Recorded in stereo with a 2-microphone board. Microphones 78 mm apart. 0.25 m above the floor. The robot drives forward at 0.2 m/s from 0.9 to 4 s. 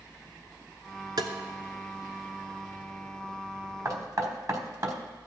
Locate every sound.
1.2 s tapping: 65° right (ahead or behind), 0.9 m; by 1.3 s 60° right (ahead or behind), 1.0 m
3.9 s knocking: 50° right (ahead or behind), 1.2 m